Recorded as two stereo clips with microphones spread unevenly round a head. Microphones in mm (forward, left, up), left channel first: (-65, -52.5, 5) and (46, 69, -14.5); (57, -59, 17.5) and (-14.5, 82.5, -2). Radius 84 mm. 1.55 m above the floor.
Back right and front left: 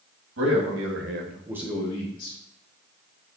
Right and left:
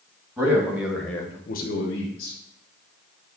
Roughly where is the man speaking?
Ahead left.